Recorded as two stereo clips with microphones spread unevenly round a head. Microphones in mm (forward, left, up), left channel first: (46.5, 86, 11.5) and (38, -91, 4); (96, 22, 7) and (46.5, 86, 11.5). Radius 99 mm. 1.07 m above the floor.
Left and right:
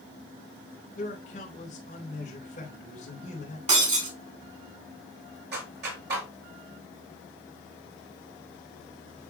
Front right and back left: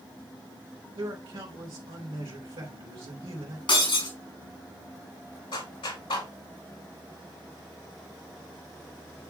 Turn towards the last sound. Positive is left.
turn(degrees=-75)